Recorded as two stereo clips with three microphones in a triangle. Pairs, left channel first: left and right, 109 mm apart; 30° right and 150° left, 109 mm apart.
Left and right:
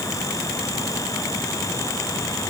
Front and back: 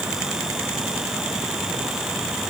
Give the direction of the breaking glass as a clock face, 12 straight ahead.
No breaking glass in this recording.